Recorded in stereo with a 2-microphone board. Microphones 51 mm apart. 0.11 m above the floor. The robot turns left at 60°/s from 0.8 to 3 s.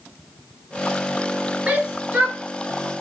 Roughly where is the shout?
Right.